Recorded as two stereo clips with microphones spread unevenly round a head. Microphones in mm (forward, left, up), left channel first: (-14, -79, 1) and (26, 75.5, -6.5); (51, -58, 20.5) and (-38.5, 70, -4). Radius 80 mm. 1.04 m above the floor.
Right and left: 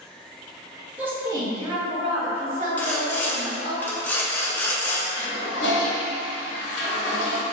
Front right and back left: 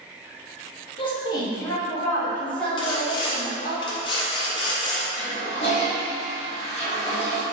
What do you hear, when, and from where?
1.0 s a woman speaking: straight ahead, 0.8 m; by 3.8 s 35° left, 2 m
2.8 s sawing: 35° right, 0.5 m
5.2 s a toilet flushing: 105° right, 1.0 m